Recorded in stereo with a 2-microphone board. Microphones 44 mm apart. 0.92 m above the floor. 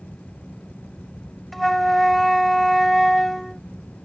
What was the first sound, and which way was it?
A flute, 5° left (ahead or behind).